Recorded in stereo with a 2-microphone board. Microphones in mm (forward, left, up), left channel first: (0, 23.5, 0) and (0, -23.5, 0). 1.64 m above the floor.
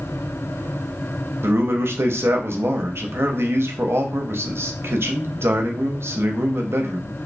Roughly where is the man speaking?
Right.